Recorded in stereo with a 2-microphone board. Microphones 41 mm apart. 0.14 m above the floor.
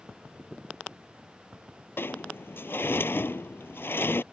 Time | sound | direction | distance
2.0 | a sliding door | 65° left (ahead or behind) | ?